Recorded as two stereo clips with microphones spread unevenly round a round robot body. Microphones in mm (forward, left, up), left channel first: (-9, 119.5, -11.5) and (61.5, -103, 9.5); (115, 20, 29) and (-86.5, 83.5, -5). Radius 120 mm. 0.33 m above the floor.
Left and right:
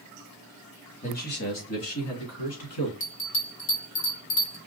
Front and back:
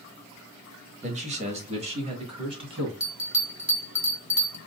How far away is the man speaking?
About 1.1 m.